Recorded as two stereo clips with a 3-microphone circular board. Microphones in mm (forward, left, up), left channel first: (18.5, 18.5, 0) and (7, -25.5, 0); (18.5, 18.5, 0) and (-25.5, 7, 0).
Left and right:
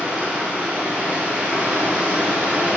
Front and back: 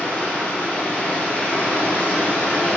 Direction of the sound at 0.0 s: 40° right.